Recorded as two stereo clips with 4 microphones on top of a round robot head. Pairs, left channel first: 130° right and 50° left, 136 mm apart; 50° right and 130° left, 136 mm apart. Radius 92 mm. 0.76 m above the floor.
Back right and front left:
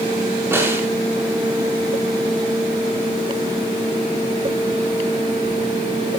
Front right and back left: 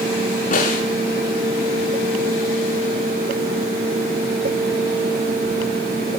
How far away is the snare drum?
About 4.5 m.